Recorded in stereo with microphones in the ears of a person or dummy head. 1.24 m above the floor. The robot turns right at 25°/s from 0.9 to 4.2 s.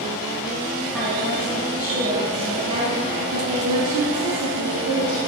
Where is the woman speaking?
175° left, 2 m; by 5.2 s 105° right, 2 m.